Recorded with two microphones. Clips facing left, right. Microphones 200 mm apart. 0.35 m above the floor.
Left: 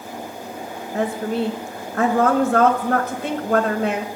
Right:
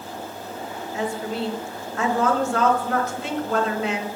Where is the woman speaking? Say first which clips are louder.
Left 5 dB; 55° left (ahead or behind), 1.3 m.